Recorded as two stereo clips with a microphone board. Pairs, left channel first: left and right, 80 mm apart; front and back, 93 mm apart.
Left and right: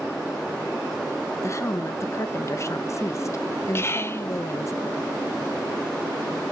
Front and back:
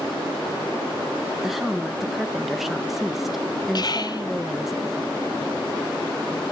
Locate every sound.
1.4 s a woman speaking: 95° left, 0.6 m
3.8 s whispering: 35° left, 0.6 m